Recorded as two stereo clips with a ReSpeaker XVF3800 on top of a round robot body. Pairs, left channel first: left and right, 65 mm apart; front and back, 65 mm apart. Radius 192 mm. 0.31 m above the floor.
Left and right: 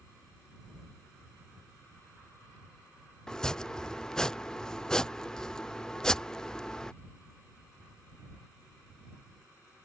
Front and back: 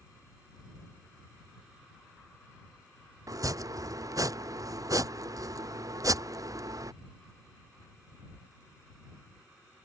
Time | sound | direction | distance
3.3 | chopping | 170° left | ?